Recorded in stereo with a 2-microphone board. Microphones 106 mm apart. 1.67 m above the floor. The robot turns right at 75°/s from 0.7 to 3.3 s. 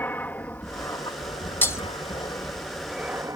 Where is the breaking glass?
20° left (ahead or behind); by 1.8 s 30° left (ahead or behind).